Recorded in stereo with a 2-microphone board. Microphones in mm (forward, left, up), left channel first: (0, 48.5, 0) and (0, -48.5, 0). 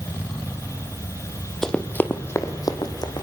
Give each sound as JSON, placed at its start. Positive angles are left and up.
{"t": 1.6, "sound": "running footsteps", "side_deg": 5, "distance_m": 1.8}